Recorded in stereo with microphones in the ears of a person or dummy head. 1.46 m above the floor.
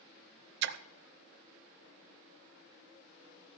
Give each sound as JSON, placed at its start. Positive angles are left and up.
{"t": 0.6, "sound": "a splash", "side_deg": -65, "distance_m": 0.6}